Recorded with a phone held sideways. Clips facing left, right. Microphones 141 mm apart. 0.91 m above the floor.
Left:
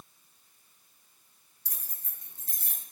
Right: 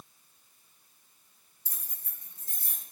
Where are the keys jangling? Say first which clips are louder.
Left 1 dB; 70° left (ahead or behind), 1.6 m; by 2.8 s 80° left, 1.3 m.